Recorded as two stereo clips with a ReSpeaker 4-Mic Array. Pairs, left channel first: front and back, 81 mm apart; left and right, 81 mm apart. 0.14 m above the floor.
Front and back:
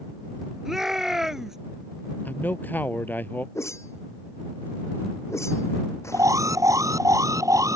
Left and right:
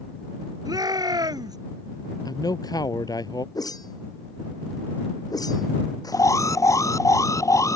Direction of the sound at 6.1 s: 135° left.